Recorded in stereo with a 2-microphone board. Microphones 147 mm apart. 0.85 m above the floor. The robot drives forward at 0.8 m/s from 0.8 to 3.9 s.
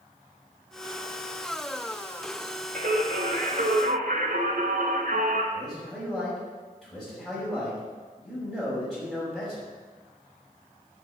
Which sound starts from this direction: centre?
A man speaking, at 5.5 s.